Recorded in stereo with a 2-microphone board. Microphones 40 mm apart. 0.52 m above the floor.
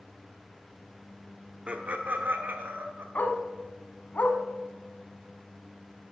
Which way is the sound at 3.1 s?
50° left (ahead or behind).